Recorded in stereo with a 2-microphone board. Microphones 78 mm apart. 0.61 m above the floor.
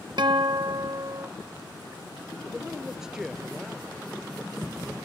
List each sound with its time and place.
0.2 s a guitar: 60° right (ahead or behind)
2.5 s a man speaking: 10° right (ahead or behind)